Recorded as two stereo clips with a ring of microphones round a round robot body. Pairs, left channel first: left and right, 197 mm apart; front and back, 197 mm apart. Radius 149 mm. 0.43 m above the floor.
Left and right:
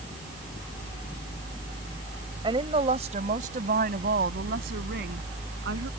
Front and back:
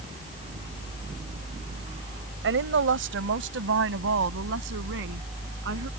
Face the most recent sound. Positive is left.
turn(degrees=-135)